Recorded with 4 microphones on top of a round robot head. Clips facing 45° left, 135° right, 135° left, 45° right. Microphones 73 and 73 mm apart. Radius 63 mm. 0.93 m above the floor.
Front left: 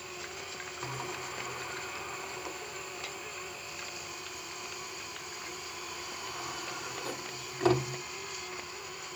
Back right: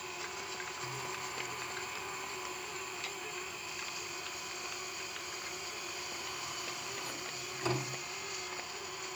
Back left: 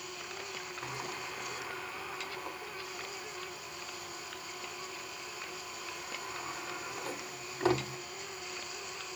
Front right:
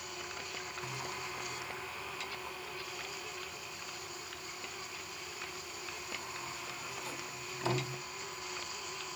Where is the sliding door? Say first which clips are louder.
Front left 5 dB, back left 2 dB; 90° left, 1.2 m.